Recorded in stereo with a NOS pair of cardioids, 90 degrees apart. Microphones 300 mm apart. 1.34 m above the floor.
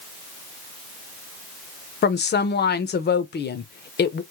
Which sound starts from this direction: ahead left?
A woman speaking, at 2.0 s.